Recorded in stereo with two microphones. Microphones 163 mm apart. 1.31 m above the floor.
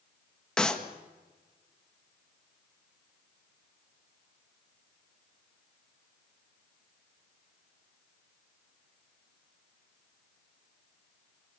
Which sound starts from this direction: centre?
A clap, at 0.6 s.